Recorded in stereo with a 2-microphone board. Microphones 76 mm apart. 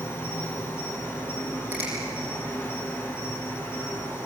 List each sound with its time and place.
0.0 s an insect: 35° left (ahead or behind), 5 m
1.7 s a finger snap: 25° right (ahead or behind), 9 m